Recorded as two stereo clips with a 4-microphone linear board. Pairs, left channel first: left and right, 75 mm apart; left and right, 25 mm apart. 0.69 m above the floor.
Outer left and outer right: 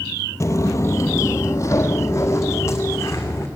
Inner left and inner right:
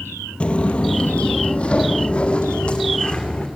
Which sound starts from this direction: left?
Footsteps, at 0.4 s.